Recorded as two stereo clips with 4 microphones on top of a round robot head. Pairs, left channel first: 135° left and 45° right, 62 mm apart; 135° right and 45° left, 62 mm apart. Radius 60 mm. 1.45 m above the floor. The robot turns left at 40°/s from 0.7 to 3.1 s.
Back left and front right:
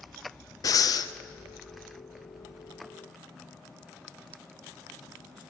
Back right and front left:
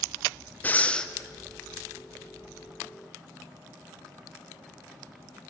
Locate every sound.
0.6 s breathing: 160° left, 0.5 m; by 1.1 s 145° left, 0.5 m